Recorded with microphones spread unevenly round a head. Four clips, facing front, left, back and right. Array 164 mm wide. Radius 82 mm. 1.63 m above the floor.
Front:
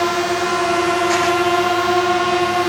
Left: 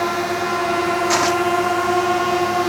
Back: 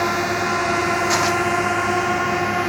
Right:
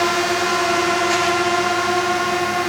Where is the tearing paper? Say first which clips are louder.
Left 1 dB, front 3 dB; 110° left.